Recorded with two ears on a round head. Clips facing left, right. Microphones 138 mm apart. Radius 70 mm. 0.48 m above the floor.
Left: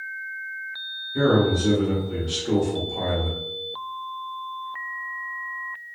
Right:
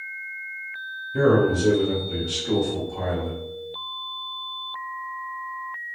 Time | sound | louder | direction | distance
1.1 | a man speaking | right 1 dB | 45° right (ahead or behind) | 1.1 m